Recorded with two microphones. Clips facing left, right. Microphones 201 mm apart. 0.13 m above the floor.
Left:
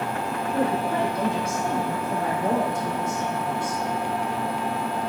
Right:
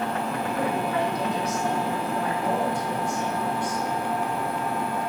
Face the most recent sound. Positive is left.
turn(degrees=45)  # may be behind; listen again after turning